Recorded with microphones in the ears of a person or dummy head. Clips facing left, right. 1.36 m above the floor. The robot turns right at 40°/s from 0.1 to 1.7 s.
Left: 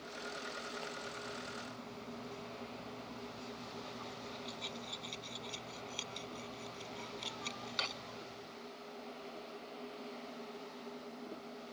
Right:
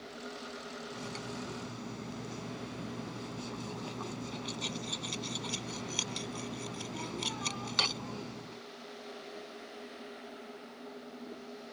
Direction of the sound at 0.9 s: 100° right.